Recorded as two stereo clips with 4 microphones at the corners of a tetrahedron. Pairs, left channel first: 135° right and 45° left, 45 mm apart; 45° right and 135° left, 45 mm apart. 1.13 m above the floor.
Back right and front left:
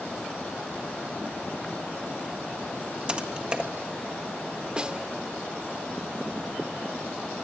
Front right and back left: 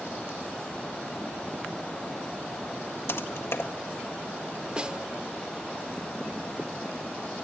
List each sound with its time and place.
3.1 s typing on a keyboard: 25° right, 1.7 m
4.8 s a snare drum: 95° left, 0.8 m